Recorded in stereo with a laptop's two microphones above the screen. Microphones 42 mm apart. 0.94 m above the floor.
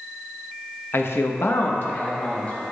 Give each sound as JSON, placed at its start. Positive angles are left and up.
{"t": 0.9, "sound": "a man speaking", "side_deg": 55, "distance_m": 0.7}